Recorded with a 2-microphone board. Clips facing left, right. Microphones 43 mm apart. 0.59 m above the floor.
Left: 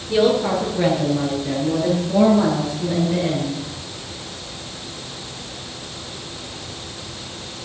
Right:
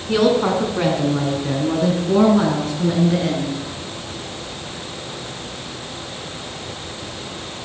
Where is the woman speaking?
70° right (ahead or behind), 6 m; by 3.6 s 80° right, 7 m.